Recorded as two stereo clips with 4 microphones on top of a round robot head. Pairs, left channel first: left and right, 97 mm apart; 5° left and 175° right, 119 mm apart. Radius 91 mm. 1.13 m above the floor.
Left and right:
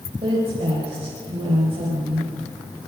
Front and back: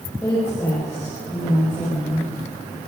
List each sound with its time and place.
0.2 s a woman speaking: 65° right, 5 m